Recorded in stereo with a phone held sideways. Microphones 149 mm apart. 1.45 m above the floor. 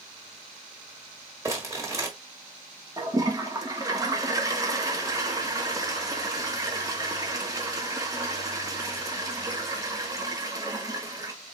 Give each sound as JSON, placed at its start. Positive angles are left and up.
{"t": 1.4, "sound": "crumpling", "side_deg": -20, "distance_m": 1.3}
{"t": 3.0, "sound": "a toilet flushing", "side_deg": -25, "distance_m": 1.0}